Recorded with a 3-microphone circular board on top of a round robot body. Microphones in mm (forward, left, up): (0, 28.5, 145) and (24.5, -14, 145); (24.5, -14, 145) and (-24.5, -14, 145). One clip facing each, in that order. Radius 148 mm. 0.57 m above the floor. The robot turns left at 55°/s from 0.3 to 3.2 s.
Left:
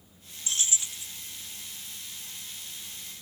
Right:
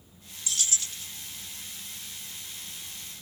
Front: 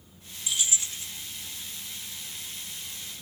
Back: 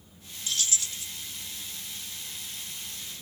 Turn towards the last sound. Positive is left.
turn(degrees=-75)